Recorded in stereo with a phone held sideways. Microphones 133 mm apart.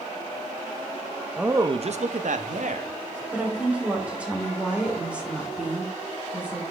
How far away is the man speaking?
About 0.7 m.